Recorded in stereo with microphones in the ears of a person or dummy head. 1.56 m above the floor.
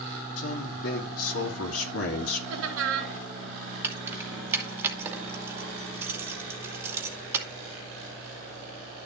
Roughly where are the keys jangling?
Centre.